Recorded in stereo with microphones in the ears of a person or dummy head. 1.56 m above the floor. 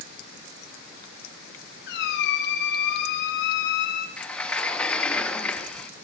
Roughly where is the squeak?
Left.